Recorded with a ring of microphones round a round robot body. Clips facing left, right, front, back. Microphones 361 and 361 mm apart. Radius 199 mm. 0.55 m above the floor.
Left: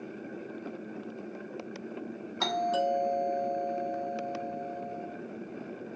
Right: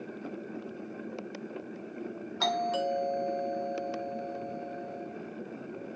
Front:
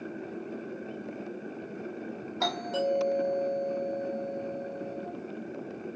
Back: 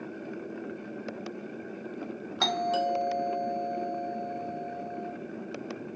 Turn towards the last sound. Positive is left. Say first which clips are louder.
# left 1 dB, front 1 dB
turn(degrees=-175)